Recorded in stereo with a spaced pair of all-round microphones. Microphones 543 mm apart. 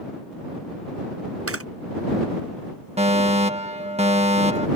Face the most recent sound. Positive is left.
turn(degrees=-10)  # may be behind; listen again after turning